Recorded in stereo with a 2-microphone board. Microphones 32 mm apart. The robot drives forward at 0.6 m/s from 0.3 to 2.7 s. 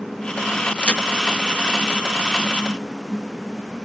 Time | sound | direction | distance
0.8 | a crack | 40° left (ahead or behind) | 1.2 m